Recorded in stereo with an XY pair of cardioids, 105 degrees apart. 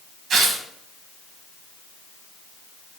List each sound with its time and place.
0.3 s tearing paper: 60° right, 1.9 m